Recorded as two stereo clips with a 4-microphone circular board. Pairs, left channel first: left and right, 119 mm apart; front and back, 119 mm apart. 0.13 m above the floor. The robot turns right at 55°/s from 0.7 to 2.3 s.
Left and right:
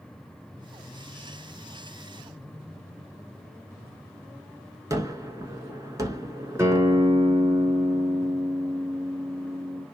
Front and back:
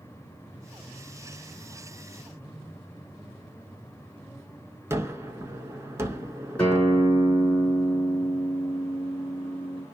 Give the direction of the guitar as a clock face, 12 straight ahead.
2 o'clock.